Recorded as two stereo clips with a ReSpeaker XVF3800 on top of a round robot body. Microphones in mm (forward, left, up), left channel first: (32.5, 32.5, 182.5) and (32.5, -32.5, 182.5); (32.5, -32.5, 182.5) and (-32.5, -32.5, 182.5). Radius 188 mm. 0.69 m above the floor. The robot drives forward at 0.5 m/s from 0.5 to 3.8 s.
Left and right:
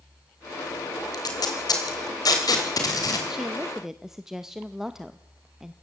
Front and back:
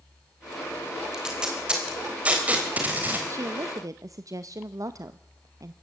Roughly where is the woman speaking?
Behind.